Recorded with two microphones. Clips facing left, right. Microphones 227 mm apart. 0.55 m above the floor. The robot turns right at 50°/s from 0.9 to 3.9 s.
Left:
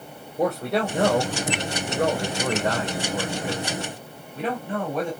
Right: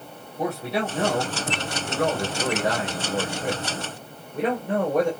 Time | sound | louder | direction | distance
0.4 | a man speaking | left 3 dB | 110° left | 2 m